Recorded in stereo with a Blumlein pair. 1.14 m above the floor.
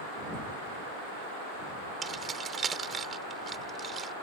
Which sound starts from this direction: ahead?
Keys jangling, at 2.0 s.